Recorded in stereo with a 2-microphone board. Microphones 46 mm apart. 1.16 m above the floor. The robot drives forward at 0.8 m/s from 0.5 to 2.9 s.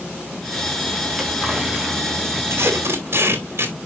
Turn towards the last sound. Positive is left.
turn(degrees=-60)  # may be behind; listen again after turning